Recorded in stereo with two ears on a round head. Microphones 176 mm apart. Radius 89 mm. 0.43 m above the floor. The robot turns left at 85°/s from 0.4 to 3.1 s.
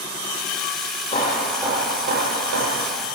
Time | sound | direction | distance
1.1 | hammering | 30° left | 7.5 m